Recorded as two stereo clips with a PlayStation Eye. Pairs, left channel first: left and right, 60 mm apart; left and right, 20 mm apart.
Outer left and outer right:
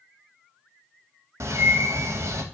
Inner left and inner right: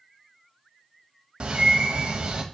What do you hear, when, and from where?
1.4 s a bird: 55° right (ahead or behind), 0.5 m